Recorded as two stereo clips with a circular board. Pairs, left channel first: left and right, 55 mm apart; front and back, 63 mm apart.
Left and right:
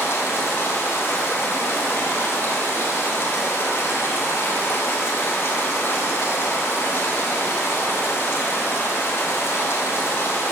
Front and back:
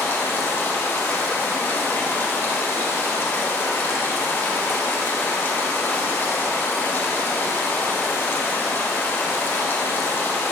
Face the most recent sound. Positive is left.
turn(degrees=55)